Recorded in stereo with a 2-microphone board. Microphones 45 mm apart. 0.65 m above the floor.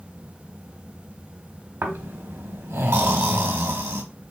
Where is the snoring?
80° right, 1.3 m.